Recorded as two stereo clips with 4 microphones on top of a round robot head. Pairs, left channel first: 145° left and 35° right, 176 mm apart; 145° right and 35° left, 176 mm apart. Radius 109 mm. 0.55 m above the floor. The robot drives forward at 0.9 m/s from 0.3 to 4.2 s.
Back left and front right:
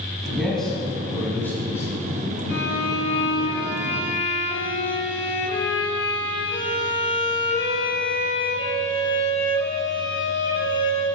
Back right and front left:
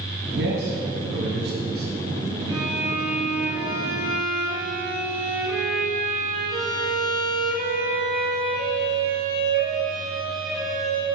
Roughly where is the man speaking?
Ahead left.